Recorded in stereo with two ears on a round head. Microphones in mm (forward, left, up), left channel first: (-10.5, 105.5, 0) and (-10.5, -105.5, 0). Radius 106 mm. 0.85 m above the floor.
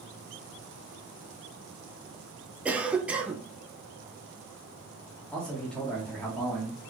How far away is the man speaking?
About 1.2 m.